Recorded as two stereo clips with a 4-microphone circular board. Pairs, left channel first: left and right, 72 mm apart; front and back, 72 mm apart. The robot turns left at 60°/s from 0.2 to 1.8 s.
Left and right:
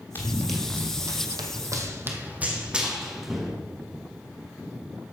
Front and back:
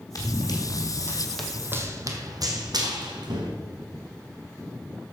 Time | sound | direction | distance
0.1 | running footsteps | 30° left | 1.9 m